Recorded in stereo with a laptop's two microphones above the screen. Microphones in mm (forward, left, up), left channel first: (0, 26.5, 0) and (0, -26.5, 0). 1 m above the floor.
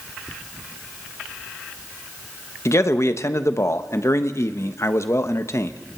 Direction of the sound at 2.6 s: 60° left (ahead or behind).